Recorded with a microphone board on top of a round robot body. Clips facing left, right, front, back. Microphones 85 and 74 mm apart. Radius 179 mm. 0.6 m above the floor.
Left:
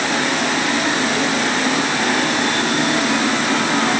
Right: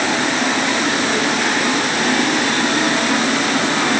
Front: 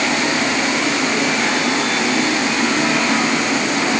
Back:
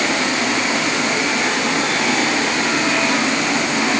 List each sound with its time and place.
Only background noise.